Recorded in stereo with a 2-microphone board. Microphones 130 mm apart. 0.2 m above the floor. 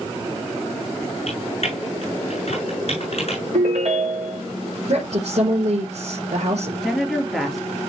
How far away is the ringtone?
About 5 m.